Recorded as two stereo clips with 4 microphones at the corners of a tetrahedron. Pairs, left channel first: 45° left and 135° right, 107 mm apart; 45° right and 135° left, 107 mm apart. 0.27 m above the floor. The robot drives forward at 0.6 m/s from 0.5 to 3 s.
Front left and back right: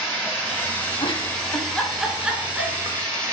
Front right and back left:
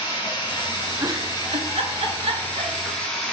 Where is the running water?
20° right, 1.6 m; by 3.3 s 125° right, 1.2 m.